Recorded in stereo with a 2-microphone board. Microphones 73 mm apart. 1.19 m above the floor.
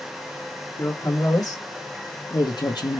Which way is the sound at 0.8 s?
55° left (ahead or behind).